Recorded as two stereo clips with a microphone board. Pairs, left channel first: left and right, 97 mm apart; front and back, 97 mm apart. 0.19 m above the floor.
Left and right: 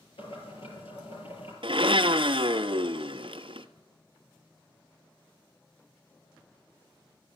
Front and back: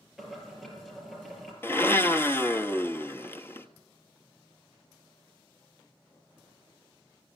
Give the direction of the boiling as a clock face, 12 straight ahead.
9 o'clock.